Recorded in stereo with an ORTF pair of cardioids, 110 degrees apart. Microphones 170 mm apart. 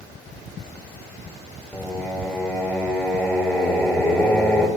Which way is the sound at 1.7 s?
10° left.